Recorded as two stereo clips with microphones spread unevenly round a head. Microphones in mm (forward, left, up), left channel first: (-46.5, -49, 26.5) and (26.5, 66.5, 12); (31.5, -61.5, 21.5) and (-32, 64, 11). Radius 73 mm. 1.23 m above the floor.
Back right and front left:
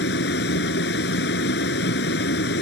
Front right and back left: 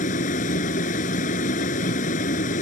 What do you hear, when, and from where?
0.0 s a vehicle: 100° right